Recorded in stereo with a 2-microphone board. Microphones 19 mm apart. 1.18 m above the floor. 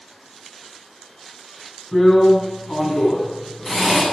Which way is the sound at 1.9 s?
20° left (ahead or behind).